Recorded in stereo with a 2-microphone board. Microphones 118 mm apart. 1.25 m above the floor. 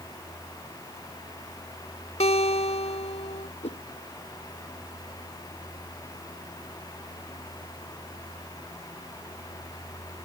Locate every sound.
2.2 s a guitar: 75° left (ahead or behind)
3.6 s a whoosh: 70° left (ahead or behind)